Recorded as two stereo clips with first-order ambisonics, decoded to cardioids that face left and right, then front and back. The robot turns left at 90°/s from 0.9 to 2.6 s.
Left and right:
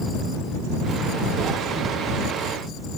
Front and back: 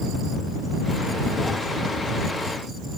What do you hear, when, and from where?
Only background noise.